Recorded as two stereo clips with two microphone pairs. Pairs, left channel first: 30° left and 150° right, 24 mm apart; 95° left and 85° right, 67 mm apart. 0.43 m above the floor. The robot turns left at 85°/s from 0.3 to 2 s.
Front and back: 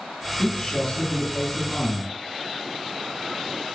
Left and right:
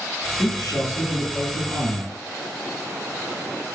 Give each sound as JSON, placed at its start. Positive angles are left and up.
{"t": 0.4, "sound": "a man speaking", "azimuth_deg": 90, "distance_m": 3.5}